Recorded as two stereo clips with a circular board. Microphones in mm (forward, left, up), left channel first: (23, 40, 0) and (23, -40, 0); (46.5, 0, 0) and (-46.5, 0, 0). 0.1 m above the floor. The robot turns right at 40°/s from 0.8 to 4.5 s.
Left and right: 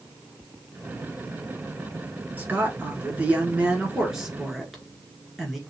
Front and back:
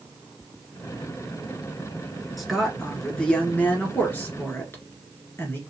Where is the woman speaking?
90° right, 1.6 m; by 5.6 s 5° right, 1.6 m.